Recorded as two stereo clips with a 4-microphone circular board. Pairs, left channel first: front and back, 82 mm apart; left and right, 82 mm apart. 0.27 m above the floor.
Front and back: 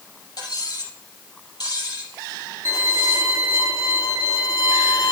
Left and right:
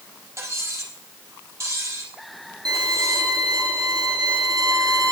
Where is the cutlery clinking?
35° right, 4.5 m.